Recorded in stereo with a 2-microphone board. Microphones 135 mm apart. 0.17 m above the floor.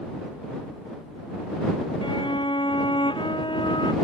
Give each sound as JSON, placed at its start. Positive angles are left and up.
{"t": 2.0, "sound": "a violin", "side_deg": 40}